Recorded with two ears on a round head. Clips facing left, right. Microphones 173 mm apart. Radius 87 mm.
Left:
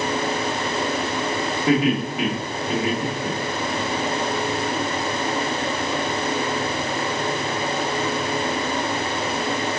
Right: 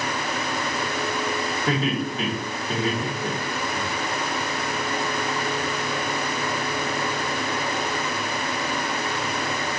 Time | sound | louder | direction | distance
1.7 | laughter | left 6 dB | 10° left (ahead or behind) | 2.5 m